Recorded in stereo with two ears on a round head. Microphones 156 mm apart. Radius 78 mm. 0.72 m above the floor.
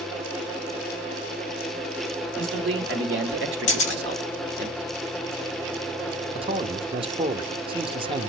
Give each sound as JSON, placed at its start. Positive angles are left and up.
{"t": 2.4, "sound": "a man speaking", "side_deg": -80, "distance_m": 2.5}
{"t": 3.7, "sound": "a camera shutter", "side_deg": 40, "distance_m": 5.5}
{"t": 6.3, "sound": "a man speaking", "side_deg": -30, "distance_m": 0.8}